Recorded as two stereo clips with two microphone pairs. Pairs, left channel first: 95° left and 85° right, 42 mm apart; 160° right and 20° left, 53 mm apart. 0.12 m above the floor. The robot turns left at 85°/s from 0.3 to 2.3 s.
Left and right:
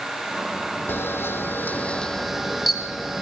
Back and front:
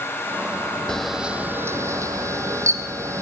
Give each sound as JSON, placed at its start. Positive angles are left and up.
{"t": 0.9, "sound": "a camera shutter", "azimuth_deg": 120, "distance_m": 1.9}